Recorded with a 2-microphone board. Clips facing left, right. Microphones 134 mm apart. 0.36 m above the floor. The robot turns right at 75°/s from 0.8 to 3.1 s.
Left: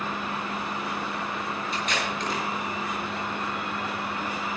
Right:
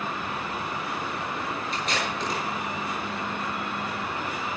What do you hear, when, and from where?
1.7 s tape being pulled: 45° right (ahead or behind), 8 m; by 2.4 s 10° left (ahead or behind), 8 m